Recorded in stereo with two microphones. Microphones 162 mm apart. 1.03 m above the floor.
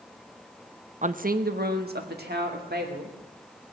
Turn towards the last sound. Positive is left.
turn(degrees=-85)